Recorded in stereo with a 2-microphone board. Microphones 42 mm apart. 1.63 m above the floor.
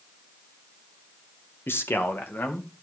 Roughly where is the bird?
I don't hear a bird.